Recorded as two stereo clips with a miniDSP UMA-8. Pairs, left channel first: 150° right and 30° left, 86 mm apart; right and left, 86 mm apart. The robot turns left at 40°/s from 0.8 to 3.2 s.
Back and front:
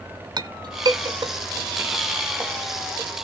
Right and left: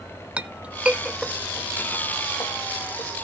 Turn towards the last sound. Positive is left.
turn(degrees=-80)